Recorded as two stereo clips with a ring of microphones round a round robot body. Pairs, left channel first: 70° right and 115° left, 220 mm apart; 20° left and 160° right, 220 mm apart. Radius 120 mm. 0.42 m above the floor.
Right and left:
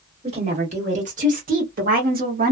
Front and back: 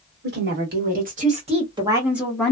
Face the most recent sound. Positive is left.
turn(degrees=100)